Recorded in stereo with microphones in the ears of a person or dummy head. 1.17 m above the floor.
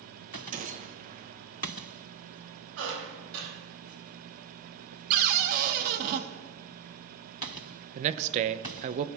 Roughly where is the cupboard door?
Right.